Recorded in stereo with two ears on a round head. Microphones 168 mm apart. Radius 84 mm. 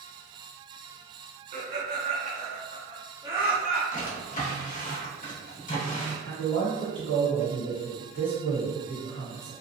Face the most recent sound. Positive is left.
turn(degrees=45)  # may be behind; listen again after turning